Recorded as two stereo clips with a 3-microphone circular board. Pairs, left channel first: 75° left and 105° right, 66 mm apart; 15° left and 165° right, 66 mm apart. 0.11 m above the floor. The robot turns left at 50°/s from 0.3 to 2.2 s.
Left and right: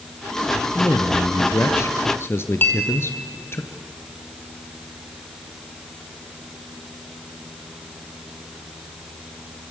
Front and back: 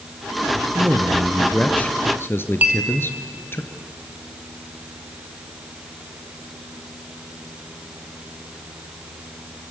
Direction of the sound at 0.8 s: 125° left.